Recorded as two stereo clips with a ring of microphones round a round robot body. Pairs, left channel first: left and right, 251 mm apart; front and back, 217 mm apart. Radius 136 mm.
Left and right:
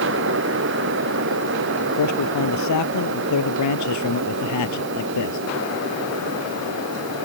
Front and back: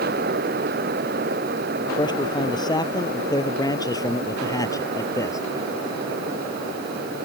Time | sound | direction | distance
2.0 | a man speaking | 70° left | ?